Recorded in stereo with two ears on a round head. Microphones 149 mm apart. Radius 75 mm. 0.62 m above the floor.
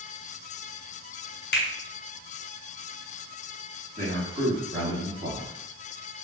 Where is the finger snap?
70° left (ahead or behind), 1.6 m.